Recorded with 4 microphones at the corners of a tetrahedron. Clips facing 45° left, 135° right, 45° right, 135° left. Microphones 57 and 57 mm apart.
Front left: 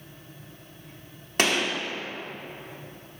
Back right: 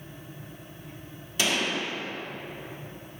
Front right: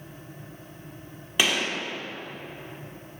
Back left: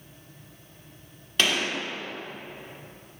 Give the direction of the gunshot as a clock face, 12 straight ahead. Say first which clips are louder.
Front left 3 dB, even; 11 o'clock.